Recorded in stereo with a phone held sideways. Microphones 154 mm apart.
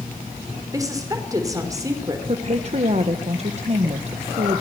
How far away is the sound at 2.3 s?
About 1.5 m.